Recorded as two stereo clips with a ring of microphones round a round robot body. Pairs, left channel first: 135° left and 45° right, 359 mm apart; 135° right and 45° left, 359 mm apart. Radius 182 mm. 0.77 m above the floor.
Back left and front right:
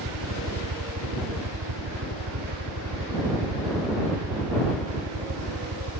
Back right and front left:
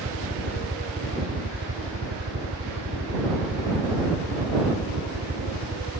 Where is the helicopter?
15° right.